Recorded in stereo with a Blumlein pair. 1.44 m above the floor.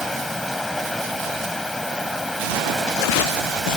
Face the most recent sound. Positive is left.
turn(degrees=5)